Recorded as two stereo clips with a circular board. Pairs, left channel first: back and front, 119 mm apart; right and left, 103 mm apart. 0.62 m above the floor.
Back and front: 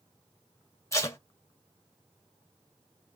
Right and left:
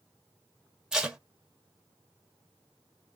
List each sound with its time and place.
0.9 s tape being pulled: 165° left, 0.8 m